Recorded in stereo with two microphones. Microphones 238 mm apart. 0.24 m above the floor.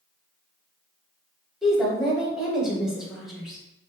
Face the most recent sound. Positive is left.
turn(degrees=0)  # may be behind; listen again after turning